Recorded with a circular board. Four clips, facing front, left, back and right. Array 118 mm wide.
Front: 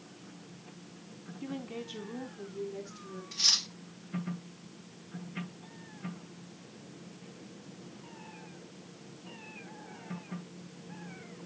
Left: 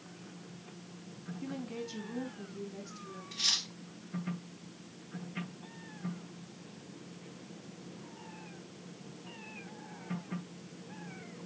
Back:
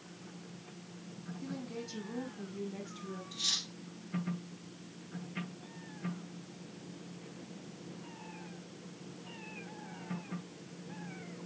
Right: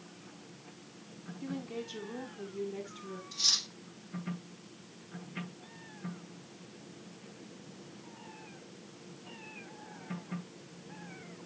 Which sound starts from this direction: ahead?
A woman speaking, at 1.4 s.